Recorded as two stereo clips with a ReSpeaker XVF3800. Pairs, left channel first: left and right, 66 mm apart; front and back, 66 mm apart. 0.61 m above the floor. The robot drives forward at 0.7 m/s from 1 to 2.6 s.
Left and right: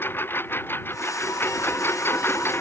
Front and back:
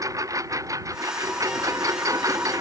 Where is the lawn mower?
145° left.